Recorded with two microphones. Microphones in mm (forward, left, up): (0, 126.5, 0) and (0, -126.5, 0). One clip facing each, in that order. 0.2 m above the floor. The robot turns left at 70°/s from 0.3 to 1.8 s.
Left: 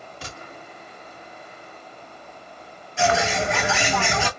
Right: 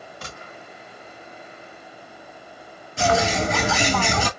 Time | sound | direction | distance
0.2 | a gunshot | 30° left (ahead or behind) | 2 m
3.0 | a bird | 40° right (ahead or behind) | 0.7 m